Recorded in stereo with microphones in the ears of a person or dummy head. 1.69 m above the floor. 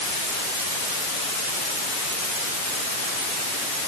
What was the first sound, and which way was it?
Only background noise.